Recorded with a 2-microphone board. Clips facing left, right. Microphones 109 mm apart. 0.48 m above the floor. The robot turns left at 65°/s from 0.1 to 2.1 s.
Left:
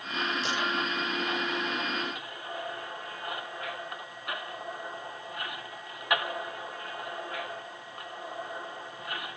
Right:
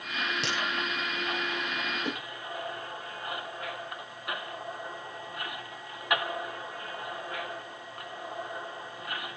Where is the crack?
70° right (ahead or behind), 7 m; by 0.6 s 65° right (ahead or behind), 7 m.